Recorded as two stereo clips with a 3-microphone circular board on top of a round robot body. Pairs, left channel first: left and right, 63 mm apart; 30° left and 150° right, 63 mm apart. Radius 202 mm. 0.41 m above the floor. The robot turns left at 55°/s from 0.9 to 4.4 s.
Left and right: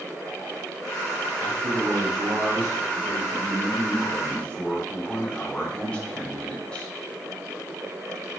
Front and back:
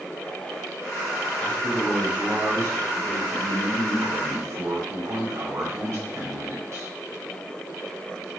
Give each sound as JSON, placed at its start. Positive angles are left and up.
{"t": 1.4, "sound": "a man speaking", "azimuth_deg": -35, "distance_m": 4.0}